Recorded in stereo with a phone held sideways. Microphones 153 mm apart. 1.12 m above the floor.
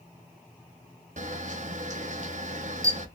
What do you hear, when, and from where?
1.2 s a camera shutter: 55° right (ahead or behind), 0.6 m